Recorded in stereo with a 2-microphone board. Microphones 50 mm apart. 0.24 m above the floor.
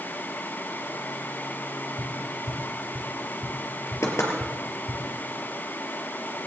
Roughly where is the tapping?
Right.